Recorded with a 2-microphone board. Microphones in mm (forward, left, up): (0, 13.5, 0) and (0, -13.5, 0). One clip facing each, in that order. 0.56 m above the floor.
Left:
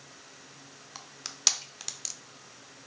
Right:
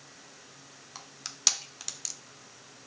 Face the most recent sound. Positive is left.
turn(degrees=10)  # may be behind; listen again after turning